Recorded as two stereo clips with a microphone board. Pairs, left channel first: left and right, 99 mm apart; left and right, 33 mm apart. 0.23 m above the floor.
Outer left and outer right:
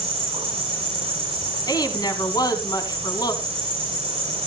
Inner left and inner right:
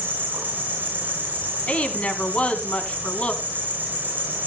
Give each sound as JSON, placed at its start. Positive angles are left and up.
{"t": 0.0, "sound": "an insect", "side_deg": -65, "distance_m": 5.0}
{"t": 1.7, "sound": "a woman speaking", "side_deg": 40, "distance_m": 1.7}